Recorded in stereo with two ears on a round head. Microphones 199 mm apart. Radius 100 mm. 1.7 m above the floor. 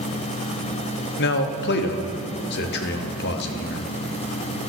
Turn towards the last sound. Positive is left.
turn(degrees=50)  # may be behind; listen again after turning